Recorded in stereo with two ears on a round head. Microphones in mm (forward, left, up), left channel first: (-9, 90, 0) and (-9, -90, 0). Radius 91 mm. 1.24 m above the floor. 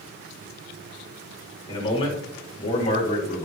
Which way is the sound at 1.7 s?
25° left (ahead or behind).